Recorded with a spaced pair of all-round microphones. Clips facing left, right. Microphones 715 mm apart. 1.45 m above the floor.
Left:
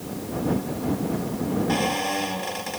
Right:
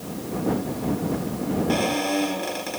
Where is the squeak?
30° left (ahead or behind).